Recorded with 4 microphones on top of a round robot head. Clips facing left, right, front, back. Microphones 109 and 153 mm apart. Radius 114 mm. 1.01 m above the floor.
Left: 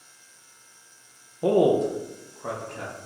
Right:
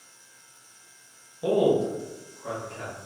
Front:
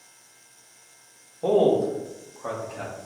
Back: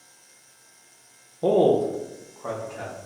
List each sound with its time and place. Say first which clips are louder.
1.4 s a man speaking: left 2 dB, back 1 dB; 130° left, 0.7 m; by 3.0 s 80° left, 1.3 m